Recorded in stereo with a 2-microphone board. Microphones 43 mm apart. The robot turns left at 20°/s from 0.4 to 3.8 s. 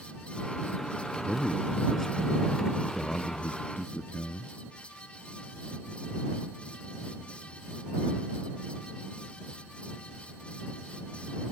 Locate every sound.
1.2 s a man speaking: straight behind; by 4.5 s 130° left